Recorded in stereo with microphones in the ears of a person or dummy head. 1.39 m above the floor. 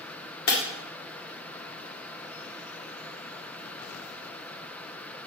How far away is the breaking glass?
About 1.7 m.